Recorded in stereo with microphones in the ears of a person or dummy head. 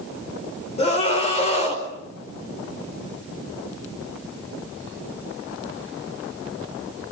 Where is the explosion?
I don't hear an explosion.